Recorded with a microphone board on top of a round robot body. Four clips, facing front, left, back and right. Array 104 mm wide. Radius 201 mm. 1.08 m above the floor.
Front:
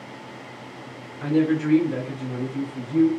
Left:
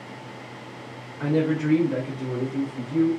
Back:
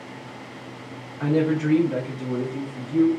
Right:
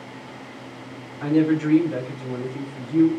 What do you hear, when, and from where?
1.2 s a woman speaking: 140° left, 0.5 m; by 3.1 s 120° left, 1.5 m